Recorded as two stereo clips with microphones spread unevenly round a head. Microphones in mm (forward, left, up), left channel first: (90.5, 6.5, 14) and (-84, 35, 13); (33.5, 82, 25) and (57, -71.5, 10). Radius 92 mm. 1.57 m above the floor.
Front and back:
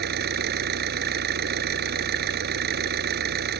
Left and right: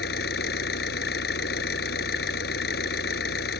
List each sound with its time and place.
0.0 s an engine running: 140° left